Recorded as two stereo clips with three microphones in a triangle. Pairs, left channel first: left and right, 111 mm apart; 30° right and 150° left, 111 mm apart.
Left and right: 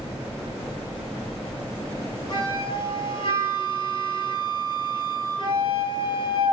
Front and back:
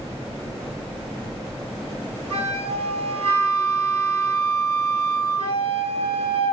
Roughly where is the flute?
Behind left.